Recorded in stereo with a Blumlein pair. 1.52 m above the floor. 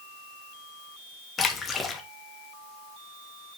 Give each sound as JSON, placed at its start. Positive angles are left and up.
{"t": 1.4, "sound": "a splash", "azimuth_deg": 15, "distance_m": 1.5}